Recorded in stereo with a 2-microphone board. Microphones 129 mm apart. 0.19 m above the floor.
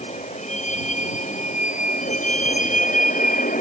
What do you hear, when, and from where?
0.0 s a vehicle: 65° left (ahead or behind); by 3.6 s 85° left